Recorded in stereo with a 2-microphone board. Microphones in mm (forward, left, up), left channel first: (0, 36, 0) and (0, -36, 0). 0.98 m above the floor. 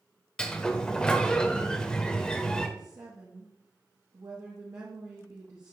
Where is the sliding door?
10° left (ahead or behind), 0.7 m.